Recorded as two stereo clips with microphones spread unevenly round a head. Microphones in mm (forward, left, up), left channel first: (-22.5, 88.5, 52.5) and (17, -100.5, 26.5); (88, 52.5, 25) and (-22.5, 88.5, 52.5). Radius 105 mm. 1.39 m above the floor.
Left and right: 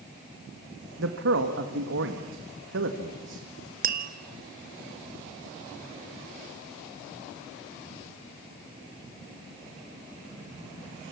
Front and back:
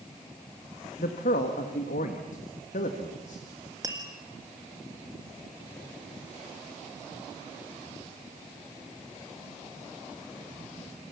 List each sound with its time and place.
1.0 s a man speaking: 50° right, 2.0 m
3.8 s tapping: 125° right, 1.6 m